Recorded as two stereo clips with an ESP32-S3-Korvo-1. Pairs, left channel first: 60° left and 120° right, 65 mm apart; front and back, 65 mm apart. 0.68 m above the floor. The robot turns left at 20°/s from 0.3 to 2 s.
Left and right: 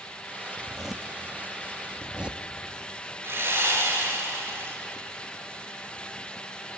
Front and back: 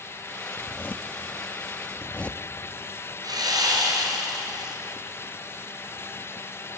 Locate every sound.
0.6 s a zipper: 30° right, 0.8 m; by 2.4 s 60° right, 0.8 m
3.2 s sawing: 175° right, 4 m